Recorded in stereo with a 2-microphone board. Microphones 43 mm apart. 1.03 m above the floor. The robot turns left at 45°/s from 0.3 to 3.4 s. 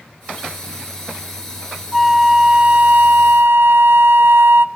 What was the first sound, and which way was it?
A flute, straight ahead.